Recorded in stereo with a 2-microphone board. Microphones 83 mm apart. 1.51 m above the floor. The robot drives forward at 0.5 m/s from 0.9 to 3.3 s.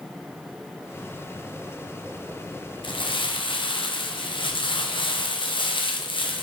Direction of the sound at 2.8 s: 85° left.